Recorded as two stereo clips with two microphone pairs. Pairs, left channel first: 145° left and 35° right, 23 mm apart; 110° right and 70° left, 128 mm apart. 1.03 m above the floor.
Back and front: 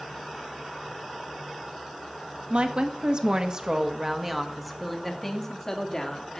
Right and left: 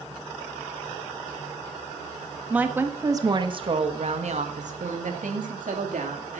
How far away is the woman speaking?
About 1.6 m.